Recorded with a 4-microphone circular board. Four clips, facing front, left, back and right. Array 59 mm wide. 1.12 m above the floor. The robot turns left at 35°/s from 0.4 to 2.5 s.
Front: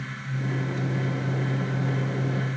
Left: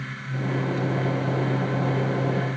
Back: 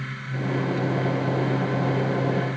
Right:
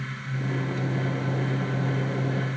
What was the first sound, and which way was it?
Only background noise.